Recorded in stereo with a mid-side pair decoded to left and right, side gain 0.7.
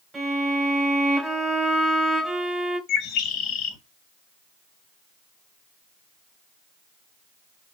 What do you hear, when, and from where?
0.1 s a violin: 10° right, 3 m
2.9 s a bird: 50° left, 0.9 m